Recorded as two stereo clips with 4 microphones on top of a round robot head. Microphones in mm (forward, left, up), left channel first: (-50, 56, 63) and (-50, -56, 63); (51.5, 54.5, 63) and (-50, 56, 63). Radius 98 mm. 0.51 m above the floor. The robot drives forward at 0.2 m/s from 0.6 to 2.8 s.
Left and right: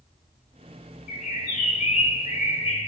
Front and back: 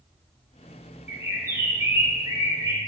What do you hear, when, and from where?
1.1 s a bird: 110° left, 0.7 m; by 2.9 s 130° left, 0.9 m